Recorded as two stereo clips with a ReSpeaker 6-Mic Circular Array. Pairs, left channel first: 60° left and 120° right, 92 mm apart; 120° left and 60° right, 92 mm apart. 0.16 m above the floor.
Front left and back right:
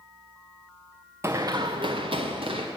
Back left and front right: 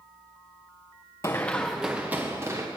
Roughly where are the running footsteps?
Behind.